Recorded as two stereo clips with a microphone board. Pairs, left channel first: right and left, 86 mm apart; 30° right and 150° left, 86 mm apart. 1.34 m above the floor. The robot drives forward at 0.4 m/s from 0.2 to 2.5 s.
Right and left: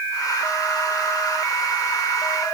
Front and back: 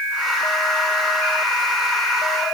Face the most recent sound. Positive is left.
No sound to turn to.